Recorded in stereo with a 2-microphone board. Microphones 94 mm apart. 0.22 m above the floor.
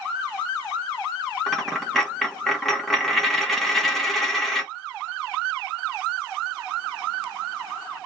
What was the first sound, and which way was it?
A dropped coin, 5° left (ahead or behind).